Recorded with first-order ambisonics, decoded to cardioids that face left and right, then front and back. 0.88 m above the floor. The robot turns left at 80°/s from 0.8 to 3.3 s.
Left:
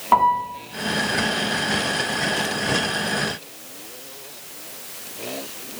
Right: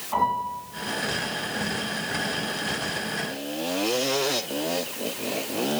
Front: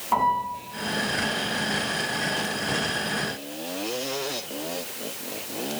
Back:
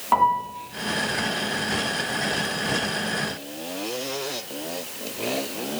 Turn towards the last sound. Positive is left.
turn(degrees=-90)